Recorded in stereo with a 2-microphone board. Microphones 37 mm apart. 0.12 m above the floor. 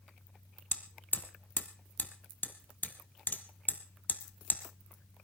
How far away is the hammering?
About 1.5 m.